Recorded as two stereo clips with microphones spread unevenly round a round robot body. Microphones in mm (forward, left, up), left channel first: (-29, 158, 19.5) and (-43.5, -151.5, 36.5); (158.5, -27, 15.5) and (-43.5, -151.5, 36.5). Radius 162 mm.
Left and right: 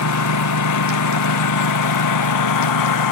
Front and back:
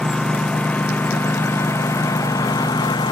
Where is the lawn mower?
120° left; by 3.1 s 110° left.